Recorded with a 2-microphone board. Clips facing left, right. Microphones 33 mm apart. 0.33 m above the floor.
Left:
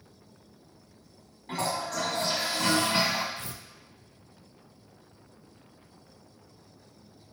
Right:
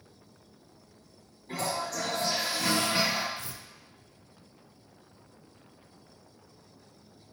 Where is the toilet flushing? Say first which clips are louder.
Left 2 dB; 65° left (ahead or behind), 1.7 m.